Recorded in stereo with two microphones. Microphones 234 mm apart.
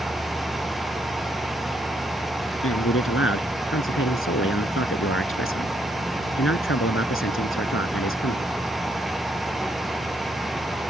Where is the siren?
I don't hear a siren.